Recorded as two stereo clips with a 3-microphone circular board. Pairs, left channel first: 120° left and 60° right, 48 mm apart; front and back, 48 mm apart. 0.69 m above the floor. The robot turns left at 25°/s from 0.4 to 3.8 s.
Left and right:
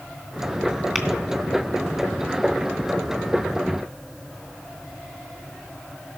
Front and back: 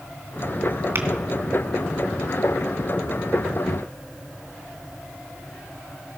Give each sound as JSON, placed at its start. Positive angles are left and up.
{"t": 0.9, "sound": "tapping", "azimuth_deg": -150, "distance_m": 2.0}